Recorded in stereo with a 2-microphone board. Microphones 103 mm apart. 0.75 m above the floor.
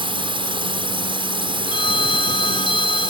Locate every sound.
0.0 s a drone: 60° right (ahead or behind)
1.7 s a phone ringing: 55° left (ahead or behind)